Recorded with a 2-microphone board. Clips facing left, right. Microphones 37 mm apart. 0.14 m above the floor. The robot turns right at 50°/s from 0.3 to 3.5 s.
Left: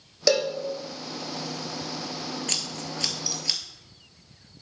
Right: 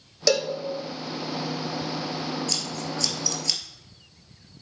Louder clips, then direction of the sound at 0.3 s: Even; 10° left (ahead or behind).